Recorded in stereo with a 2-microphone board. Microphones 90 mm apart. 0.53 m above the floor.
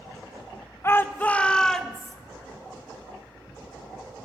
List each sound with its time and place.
0.8 s a shout: 30° left (ahead or behind), 1.0 m; by 2.1 s centre (ahead or behind), 1.9 m